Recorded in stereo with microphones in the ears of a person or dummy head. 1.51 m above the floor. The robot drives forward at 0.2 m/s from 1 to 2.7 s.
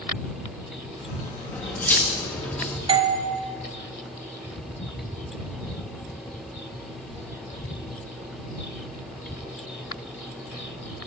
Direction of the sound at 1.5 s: 10° left (ahead or behind).